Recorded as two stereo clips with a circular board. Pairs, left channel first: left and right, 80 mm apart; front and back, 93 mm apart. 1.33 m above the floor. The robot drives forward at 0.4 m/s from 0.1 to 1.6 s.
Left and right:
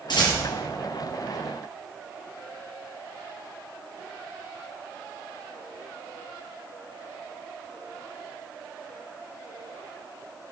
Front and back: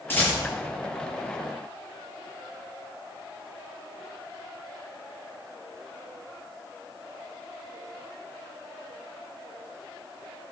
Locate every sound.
0.1 s a rattle: 65° left, 6 m; by 0.4 s 70° left, 6 m